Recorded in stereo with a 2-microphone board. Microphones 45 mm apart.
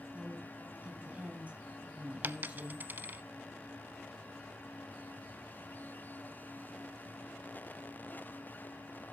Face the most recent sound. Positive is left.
turn(degrees=-45)  # may be behind; listen again after turning